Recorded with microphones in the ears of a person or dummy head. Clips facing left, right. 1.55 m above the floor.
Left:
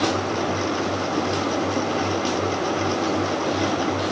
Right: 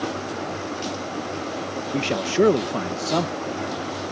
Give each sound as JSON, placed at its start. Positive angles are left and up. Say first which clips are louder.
{"t": 1.9, "sound": "a man speaking", "louder": "right 2 dB", "side_deg": -80}